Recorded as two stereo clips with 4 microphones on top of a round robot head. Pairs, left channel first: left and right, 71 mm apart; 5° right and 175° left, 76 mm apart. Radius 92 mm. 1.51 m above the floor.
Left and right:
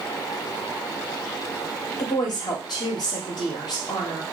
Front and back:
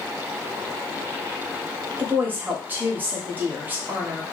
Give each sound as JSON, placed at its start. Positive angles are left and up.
{"t": 2.0, "sound": "a woman speaking", "azimuth_deg": 110, "distance_m": 1.1}